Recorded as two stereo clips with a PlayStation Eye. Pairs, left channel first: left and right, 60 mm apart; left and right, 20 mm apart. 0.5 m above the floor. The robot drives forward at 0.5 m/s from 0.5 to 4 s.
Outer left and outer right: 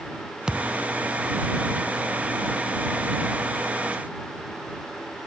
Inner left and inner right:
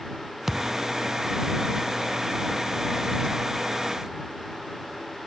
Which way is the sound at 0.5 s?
15° right (ahead or behind).